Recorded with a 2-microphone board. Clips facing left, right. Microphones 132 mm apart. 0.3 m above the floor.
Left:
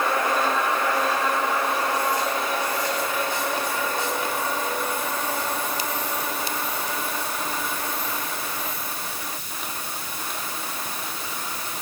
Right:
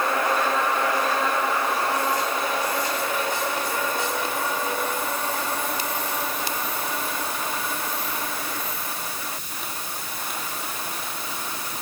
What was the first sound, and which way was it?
Only background noise.